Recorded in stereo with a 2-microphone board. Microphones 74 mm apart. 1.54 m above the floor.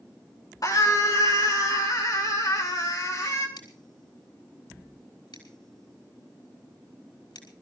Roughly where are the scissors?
Left.